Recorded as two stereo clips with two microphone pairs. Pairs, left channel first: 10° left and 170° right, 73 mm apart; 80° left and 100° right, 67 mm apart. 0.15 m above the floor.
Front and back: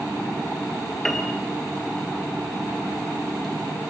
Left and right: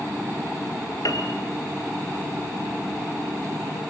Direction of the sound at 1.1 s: 90° left.